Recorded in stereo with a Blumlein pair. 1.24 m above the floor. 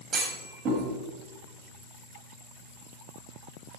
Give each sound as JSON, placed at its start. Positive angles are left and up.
{"t": 0.1, "sound": "a clunk", "azimuth_deg": -25, "distance_m": 9.0}